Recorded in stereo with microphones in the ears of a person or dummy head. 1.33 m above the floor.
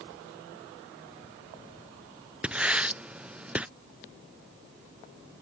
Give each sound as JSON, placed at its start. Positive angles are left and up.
{"t": 2.4, "sound": "writing", "side_deg": -5}